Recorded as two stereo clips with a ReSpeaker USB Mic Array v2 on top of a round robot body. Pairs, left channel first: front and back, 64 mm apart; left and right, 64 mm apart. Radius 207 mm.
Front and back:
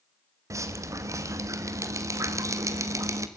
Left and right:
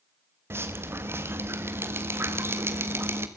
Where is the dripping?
140° right, 1.5 m.